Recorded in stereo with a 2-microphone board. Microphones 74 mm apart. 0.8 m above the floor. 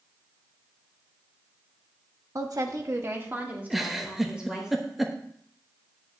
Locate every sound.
2.4 s a woman speaking: 50° right (ahead or behind), 1.1 m; by 4.7 s 10° right (ahead or behind), 3.5 m
3.7 s a giggle: centre (ahead or behind), 0.9 m